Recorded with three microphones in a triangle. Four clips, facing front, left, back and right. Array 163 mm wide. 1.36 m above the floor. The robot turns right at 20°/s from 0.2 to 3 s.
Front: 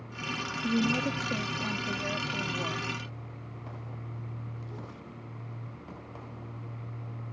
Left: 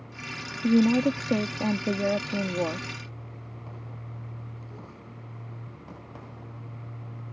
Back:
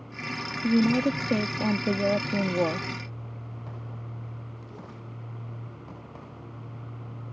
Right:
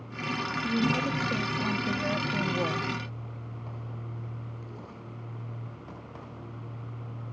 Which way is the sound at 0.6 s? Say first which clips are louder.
Left 8 dB, back 6 dB; 120° left.